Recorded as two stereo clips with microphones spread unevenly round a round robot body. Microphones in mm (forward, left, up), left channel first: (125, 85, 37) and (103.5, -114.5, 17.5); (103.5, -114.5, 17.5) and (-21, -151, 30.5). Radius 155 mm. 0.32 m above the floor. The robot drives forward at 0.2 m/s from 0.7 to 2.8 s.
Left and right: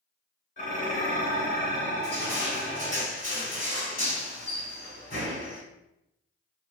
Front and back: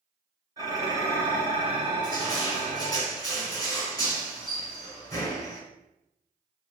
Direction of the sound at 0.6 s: 130° left.